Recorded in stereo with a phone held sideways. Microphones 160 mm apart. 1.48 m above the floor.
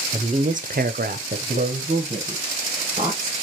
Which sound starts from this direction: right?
A woman speaking, at 0.1 s.